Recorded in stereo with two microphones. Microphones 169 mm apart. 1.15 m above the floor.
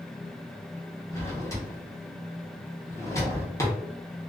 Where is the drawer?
15° left (ahead or behind), 0.9 m.